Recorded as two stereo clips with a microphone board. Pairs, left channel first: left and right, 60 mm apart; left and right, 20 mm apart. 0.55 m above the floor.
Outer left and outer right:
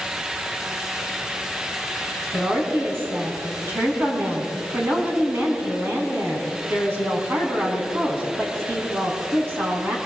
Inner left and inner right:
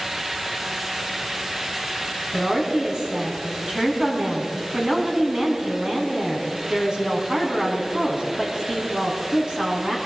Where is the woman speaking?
40° right (ahead or behind), 4.5 m.